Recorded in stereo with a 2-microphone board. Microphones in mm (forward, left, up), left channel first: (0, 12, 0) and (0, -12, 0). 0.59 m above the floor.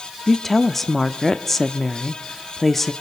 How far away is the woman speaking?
About 0.9 m.